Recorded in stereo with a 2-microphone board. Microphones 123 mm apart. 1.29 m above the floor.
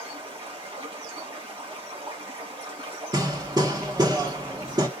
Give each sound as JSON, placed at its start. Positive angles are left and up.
{"t": 0.0, "sound": "running water", "side_deg": -45, "distance_m": 1.7}
{"t": 3.1, "sound": "hammering", "side_deg": -35, "distance_m": 1.1}